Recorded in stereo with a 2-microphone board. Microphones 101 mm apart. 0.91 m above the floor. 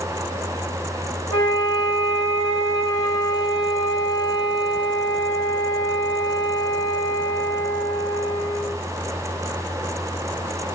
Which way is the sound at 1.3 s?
50° left (ahead or behind).